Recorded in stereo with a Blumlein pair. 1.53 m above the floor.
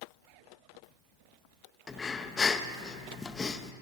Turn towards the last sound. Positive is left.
turn(degrees=15)